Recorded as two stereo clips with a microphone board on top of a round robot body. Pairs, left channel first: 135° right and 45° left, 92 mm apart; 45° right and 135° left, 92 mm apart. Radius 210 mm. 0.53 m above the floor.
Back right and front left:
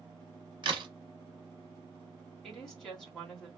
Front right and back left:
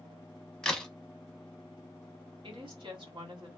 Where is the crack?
40° left, 1.0 m.